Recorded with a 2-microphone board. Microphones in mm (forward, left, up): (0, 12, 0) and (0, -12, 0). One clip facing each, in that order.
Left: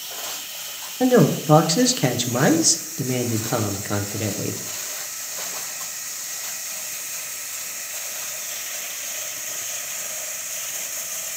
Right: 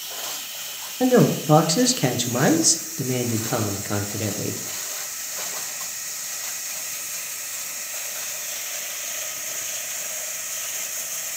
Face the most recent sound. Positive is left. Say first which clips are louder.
# left 1 dB
turn(degrees=5)  # may be behind; listen again after turning